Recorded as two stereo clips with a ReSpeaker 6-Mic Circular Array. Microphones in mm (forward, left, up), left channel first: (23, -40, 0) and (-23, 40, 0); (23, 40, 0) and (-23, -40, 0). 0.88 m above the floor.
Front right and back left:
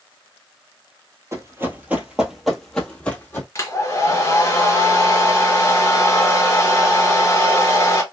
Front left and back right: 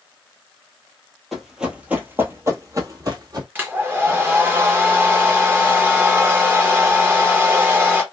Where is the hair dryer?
75° right, 0.9 m.